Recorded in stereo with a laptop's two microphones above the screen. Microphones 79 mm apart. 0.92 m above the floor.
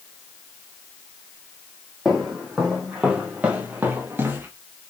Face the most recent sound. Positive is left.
turn(degrees=-30)  # may be behind; listen again after turning